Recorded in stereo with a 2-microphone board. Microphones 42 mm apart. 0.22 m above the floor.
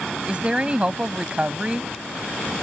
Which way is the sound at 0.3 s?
25° right (ahead or behind).